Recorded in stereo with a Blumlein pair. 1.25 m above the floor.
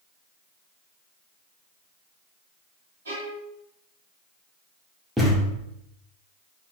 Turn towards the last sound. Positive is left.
turn(degrees=-5)